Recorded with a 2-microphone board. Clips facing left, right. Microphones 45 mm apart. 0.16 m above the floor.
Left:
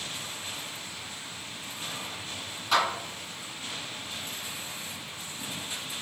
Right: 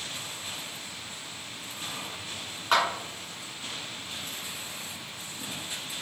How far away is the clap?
About 1.6 m.